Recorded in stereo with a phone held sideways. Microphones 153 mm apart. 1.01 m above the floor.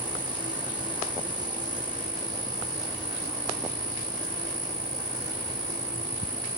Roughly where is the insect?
Left.